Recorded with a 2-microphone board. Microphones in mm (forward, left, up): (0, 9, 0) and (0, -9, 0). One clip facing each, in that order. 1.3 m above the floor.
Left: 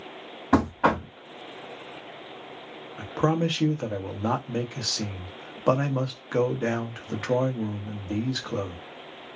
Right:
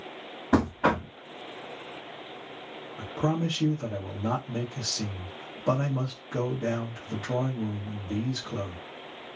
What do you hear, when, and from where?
0.5 s knocking: 35° left (ahead or behind), 1.7 m
3.0 s a man speaking: 65° left (ahead or behind), 0.7 m